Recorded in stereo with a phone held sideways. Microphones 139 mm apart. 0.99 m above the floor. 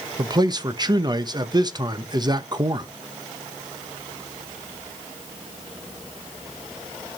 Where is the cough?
No cough in this recording.